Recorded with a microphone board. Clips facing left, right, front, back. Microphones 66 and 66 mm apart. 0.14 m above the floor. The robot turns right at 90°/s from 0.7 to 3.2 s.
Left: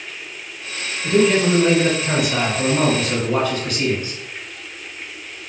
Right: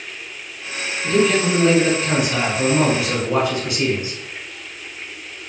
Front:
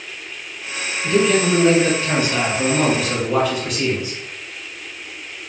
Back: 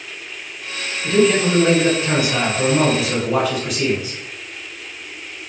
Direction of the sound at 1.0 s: 65° left.